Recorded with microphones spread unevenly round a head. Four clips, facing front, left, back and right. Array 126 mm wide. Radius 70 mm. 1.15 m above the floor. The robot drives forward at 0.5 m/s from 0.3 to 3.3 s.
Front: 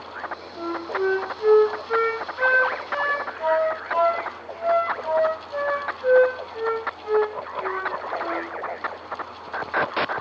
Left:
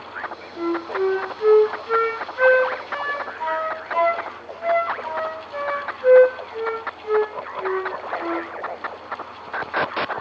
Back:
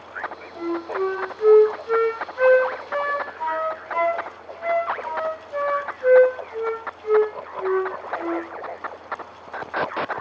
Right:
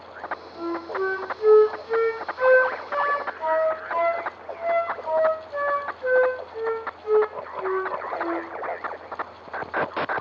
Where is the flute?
160° left, 2 m; by 8.4 s 165° left, 3.5 m.